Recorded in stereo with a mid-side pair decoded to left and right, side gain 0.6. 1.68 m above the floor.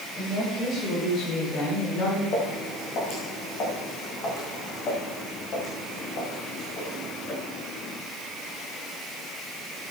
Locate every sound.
0.2 s a woman speaking: 40° left, 6.5 m; by 2.2 s 60° left, 5 m
2.3 s footsteps: 55° left, 6.5 m